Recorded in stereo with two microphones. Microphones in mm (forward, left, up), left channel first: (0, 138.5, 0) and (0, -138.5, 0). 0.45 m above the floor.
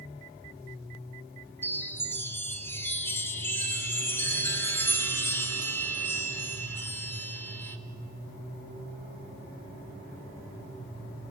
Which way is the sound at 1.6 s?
10° left (ahead or behind).